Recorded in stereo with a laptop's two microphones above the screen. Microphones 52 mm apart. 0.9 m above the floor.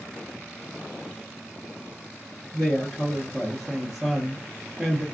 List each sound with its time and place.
2.5 s a woman speaking: 5° left (ahead or behind), 0.8 m